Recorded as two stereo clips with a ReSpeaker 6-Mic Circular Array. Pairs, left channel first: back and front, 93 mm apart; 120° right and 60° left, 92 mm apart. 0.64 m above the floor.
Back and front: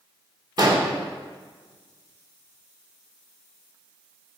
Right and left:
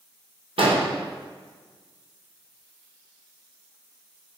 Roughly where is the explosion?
Ahead left.